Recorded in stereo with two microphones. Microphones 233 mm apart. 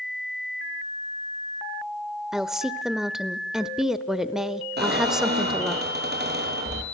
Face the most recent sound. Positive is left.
turn(degrees=-45)  # may be behind; listen again after turning